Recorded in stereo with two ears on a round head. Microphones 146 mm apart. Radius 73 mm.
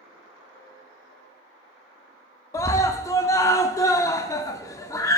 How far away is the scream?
About 0.6 m.